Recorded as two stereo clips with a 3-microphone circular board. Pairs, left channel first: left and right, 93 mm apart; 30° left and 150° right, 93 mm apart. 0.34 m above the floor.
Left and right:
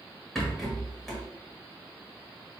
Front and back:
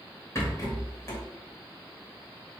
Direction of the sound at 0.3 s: 5° left.